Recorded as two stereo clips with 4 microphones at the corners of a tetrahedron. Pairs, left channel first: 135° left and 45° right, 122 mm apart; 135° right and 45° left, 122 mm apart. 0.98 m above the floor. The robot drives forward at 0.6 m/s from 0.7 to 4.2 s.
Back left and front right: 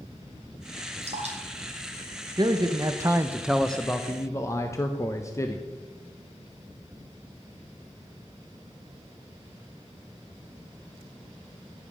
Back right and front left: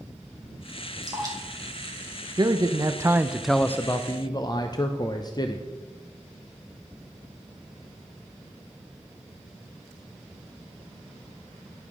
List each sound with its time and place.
1.0 s dripping: 15° right, 2.5 m
2.4 s a man speaking: 5° right, 0.8 m; by 5.7 s 175° right, 0.6 m